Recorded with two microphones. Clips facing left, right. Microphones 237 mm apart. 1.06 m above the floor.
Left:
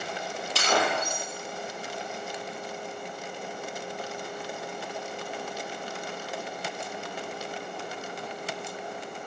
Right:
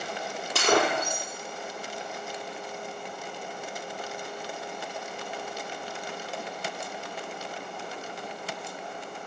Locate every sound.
0.6 s breaking glass: 55° right (ahead or behind), 3.5 m